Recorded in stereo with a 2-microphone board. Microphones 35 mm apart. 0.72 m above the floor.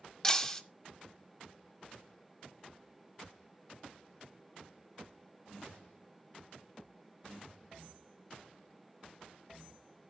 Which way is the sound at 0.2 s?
15° left (ahead or behind).